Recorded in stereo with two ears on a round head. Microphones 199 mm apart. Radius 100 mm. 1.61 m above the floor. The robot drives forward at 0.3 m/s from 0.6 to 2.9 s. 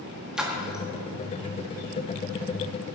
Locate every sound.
0.4 s a splash: 5° right (ahead or behind), 2 m